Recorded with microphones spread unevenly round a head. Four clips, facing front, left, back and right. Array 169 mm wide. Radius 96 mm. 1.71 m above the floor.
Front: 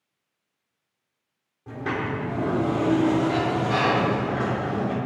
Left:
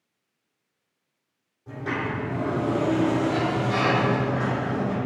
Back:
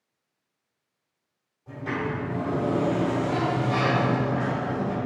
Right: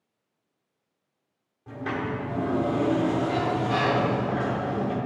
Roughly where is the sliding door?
Ahead.